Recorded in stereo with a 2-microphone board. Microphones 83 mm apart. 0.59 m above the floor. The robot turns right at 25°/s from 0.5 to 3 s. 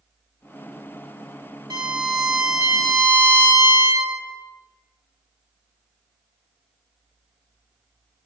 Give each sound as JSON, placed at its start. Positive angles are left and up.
{"t": 1.7, "sound": "a violin", "azimuth_deg": -80, "distance_m": 1.1}